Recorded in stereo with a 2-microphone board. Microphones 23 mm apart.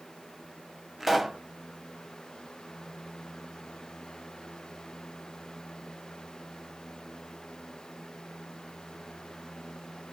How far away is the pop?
About 0.5 m.